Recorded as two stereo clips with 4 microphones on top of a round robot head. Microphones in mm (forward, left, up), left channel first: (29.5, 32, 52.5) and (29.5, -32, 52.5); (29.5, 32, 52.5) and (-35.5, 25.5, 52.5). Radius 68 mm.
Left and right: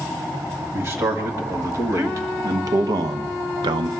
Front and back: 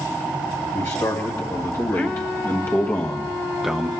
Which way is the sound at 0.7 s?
40° right.